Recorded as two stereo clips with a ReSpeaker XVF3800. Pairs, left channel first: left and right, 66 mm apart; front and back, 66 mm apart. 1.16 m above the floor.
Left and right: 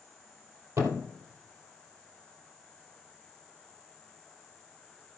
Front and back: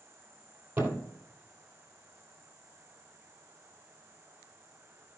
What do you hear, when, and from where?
0.8 s a thud: 125° right, 2 m